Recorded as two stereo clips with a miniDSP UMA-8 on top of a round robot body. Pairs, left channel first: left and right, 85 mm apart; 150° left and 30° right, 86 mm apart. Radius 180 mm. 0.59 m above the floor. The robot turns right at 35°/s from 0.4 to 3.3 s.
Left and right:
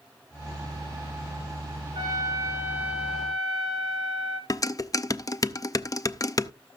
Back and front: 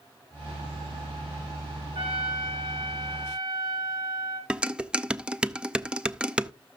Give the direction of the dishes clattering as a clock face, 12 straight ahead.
10 o'clock.